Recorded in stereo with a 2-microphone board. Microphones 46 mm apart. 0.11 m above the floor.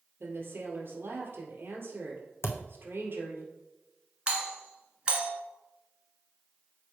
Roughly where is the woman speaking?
Right.